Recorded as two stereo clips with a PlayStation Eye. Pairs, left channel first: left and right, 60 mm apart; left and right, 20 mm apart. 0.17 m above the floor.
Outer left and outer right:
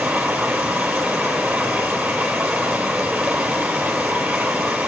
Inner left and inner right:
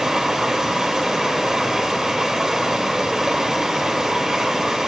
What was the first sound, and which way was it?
Running water, 25° right (ahead or behind).